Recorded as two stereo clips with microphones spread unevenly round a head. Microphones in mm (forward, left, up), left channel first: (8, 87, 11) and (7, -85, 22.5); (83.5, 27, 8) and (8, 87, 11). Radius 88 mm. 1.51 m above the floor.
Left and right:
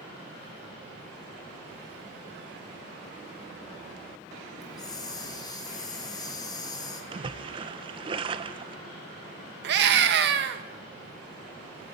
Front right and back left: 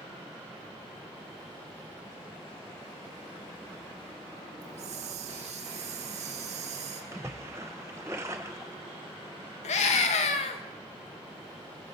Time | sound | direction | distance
4.6 | a hiss | 160° left | 2 m
7.1 | a splash | 150° right | 0.8 m
9.6 | a scream | 60° right | 2.5 m